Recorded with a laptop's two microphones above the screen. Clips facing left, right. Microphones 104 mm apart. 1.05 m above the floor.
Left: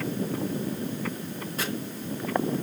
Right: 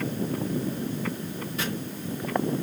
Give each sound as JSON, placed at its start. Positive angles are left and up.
{"t": 1.6, "sound": "chopping", "side_deg": 40, "distance_m": 4.0}